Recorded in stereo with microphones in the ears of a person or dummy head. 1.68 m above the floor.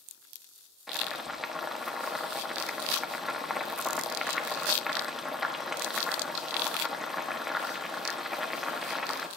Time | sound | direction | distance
0.9 | boiling | centre (ahead or behind) | 1.1 m